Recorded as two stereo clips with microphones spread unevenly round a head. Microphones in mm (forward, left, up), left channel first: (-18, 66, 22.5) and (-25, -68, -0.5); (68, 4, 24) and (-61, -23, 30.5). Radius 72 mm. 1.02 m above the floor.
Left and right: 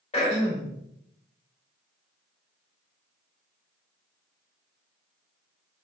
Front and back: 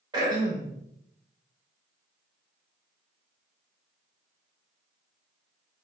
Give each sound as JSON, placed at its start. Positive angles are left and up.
{"t": 0.1, "sound": "throat clearing", "azimuth_deg": 130, "distance_m": 2.5}